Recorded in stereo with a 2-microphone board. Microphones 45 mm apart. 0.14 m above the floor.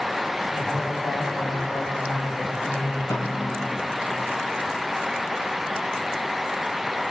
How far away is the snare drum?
About 5.5 m.